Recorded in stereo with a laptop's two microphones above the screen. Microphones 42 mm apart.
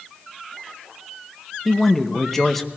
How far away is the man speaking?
About 0.8 m.